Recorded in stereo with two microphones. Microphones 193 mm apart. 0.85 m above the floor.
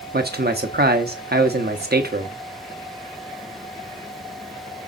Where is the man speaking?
60° right (ahead or behind), 1.1 m.